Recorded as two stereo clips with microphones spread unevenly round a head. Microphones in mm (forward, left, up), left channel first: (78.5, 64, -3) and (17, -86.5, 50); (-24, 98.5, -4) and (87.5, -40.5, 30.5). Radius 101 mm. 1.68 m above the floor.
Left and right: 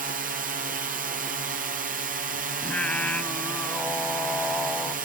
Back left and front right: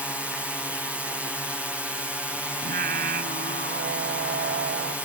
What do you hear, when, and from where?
0.0 s a drone: 145° right
2.6 s singing: 20° right